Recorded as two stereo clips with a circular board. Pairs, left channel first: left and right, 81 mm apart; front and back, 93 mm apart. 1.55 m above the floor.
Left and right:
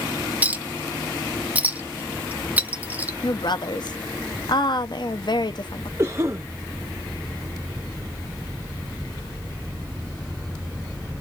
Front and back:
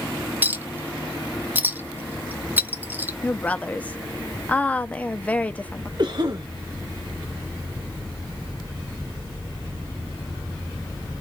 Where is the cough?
145° right, 0.8 m.